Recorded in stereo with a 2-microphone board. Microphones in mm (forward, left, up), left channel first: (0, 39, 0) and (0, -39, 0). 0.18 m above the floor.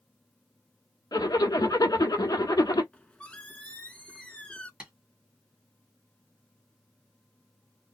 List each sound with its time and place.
1.1 s a zipper: 60° left (ahead or behind), 0.8 m
2.9 s a squeak: 15° left (ahead or behind), 0.6 m
4.8 s tapping: 10° right (ahead or behind), 1.5 m